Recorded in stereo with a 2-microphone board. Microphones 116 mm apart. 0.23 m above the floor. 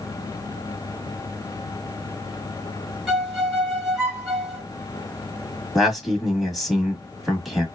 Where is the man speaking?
Centre (ahead or behind), 1.1 m.